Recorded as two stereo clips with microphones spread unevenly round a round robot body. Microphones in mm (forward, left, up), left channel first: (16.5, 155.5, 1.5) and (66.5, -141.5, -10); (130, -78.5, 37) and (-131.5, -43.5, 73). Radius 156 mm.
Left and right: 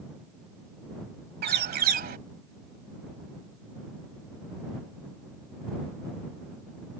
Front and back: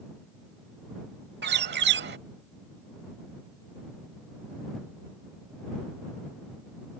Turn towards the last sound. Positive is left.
turn(degrees=-140)